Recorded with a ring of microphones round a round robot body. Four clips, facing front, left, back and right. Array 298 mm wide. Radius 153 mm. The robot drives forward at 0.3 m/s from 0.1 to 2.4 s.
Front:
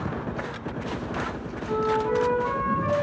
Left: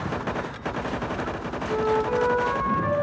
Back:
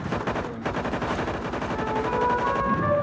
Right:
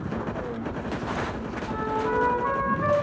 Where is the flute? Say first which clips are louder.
Left 4 dB, front 4 dB; 130° right, 6 m; by 2.9 s 135° right, 6.5 m.